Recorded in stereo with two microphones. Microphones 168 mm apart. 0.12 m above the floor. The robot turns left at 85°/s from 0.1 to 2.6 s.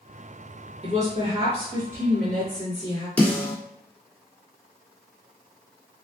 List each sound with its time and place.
0.8 s a woman speaking: 65° right, 1.9 m; by 3.1 s 145° left, 1.9 m
3.2 s a snare drum: 10° left (ahead or behind), 1.8 m